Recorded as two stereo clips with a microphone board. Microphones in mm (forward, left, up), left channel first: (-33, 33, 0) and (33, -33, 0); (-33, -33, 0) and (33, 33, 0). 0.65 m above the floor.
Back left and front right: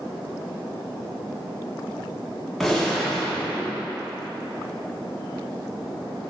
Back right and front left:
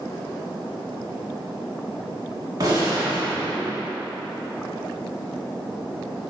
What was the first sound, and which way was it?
A gunshot, 50° left.